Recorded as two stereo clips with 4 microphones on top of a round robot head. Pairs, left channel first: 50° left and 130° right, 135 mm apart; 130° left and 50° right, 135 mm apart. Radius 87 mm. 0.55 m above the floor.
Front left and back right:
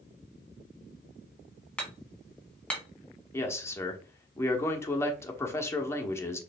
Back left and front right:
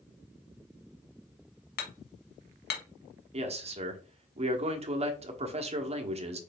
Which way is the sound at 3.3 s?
20° right.